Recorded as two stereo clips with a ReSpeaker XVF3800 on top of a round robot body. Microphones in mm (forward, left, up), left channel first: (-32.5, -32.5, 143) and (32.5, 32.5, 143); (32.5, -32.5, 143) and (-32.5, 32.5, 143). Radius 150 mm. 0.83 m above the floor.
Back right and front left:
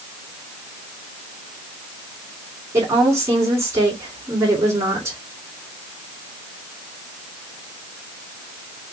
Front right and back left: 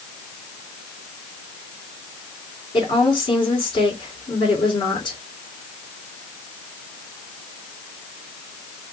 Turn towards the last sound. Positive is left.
turn(degrees=-15)